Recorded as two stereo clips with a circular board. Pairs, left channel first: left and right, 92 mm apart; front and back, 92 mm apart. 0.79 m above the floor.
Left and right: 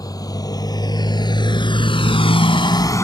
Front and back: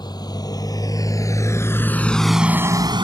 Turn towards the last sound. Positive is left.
turn(degrees=150)